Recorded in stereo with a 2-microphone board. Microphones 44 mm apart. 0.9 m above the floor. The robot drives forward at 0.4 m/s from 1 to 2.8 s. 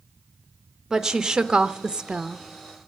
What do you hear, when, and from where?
0.9 s a woman speaking: 10° right (ahead or behind), 1.1 m; by 2.5 s 20° right (ahead or behind), 0.6 m